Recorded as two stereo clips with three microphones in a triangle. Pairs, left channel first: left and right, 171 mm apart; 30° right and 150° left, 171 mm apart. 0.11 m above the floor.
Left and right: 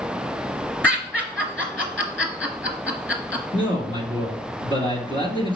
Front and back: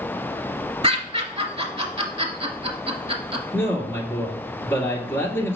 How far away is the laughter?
About 1.2 m.